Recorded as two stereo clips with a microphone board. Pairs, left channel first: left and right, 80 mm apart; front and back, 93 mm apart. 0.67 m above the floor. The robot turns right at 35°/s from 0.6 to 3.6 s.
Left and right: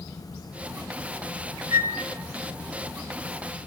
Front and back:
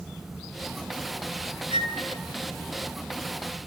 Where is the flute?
155° right, 4.5 m; by 1.9 s 145° right, 4.5 m.